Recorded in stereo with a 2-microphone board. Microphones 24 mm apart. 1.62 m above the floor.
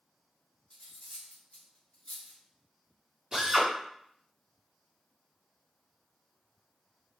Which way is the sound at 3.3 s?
35° right (ahead or behind).